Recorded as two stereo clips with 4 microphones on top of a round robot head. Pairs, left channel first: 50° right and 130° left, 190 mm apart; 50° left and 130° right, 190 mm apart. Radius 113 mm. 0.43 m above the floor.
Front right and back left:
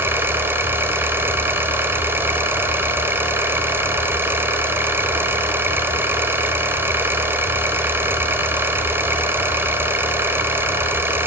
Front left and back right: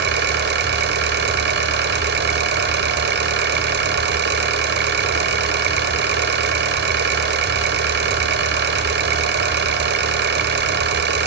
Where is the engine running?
150° right, 2 m.